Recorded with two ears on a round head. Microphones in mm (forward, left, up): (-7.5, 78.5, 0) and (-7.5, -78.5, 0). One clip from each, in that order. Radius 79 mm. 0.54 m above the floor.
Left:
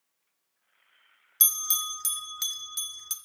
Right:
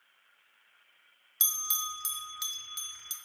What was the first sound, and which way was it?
A bell, 10° left (ahead or behind).